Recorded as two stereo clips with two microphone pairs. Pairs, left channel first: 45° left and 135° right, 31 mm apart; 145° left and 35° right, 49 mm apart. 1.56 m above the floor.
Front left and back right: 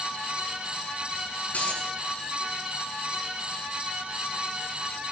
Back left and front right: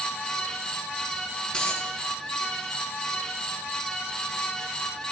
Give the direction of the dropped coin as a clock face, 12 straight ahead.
10 o'clock.